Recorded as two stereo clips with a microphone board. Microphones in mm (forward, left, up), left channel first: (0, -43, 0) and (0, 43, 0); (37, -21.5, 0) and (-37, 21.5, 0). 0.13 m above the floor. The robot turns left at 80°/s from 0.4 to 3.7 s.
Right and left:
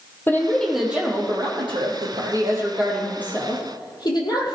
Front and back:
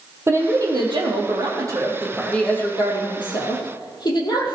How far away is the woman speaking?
About 4.5 m.